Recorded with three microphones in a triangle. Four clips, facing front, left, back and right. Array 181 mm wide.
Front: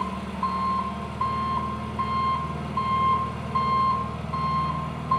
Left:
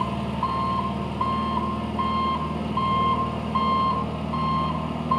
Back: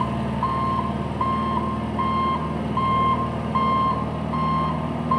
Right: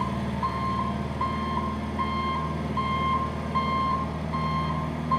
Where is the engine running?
165° left, 0.9 m.